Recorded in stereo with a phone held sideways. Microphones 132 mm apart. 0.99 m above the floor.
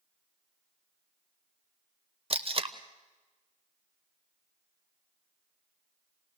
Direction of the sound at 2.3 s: 45° right (ahead or behind).